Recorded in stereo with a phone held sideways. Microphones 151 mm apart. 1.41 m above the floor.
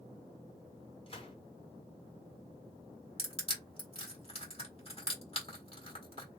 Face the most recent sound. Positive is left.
turn(degrees=40)  # may be behind; listen again after turning